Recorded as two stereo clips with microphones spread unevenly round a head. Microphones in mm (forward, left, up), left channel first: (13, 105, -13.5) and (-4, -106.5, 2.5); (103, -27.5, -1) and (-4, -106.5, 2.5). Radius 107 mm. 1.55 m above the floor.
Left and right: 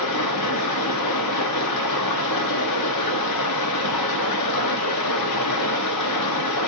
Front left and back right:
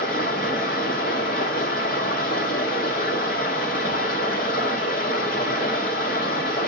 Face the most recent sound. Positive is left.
turn(degrees=85)